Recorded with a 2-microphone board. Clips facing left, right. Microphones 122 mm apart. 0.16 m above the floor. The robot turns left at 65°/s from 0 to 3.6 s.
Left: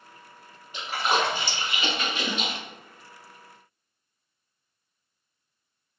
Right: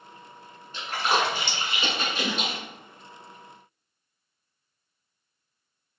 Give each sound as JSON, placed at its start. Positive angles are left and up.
{"t": 0.7, "sound": "a splash", "side_deg": 15, "distance_m": 1.3}